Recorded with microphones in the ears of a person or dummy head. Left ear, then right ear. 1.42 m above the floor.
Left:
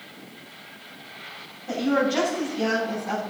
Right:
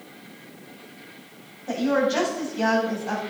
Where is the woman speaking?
75° right (ahead or behind), 8.5 m.